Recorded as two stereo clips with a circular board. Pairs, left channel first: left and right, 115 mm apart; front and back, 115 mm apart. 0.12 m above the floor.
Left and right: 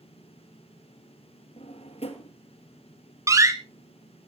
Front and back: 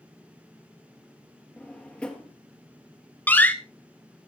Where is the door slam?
60° right, 1.0 m.